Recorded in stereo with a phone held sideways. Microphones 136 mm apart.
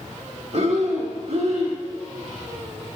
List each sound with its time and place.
0.5 s breathing: 55° right (ahead or behind), 1.3 m